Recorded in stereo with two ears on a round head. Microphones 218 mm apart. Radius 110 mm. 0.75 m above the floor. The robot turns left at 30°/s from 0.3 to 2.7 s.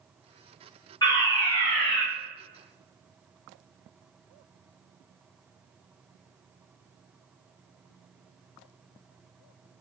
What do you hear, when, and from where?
1.0 s a fire alarm: 15° left (ahead or behind), 1.5 m; by 2.0 s centre (ahead or behind), 1.5 m